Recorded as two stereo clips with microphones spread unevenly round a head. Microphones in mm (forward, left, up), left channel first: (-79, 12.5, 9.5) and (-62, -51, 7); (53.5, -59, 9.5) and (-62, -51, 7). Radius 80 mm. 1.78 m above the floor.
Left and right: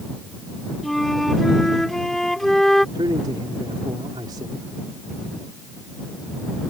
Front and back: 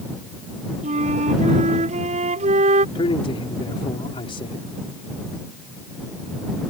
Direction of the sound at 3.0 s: 40° right.